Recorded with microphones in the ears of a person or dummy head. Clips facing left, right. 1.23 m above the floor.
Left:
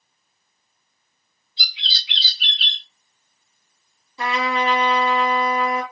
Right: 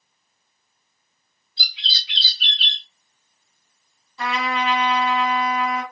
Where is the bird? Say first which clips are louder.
Even; 15° left (ahead or behind), 3 m.